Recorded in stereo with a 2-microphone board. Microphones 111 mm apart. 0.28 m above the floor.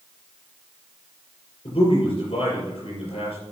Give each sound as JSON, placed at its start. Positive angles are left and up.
{"t": 1.6, "sound": "a man speaking", "side_deg": 60, "distance_m": 5.5}